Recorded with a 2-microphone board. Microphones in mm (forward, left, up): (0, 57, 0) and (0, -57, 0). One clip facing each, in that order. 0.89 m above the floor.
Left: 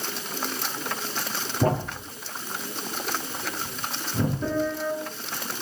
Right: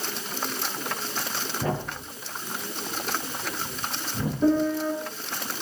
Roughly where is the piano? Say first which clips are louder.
Right 4 dB; centre.